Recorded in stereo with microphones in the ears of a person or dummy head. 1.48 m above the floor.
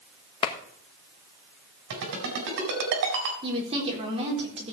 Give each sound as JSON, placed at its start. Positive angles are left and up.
{"t": 0.4, "sound": "a clap", "side_deg": 25, "distance_m": 1.4}
{"t": 1.9, "sound": "a ringtone", "side_deg": -65, "distance_m": 4.0}
{"t": 3.4, "sound": "a woman speaking", "side_deg": -35, "distance_m": 3.5}